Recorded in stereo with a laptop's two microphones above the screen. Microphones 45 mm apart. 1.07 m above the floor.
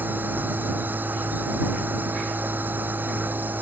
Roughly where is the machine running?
Right.